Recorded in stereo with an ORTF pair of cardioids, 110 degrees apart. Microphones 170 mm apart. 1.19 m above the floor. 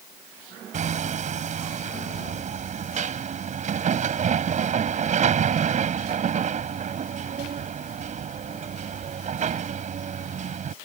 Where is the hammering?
45° right.